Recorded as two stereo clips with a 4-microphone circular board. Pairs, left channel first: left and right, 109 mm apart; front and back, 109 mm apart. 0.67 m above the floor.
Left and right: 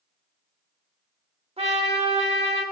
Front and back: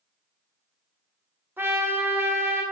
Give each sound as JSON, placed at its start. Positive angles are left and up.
{"t": 1.6, "sound": "a trumpet", "azimuth_deg": -110, "distance_m": 0.6}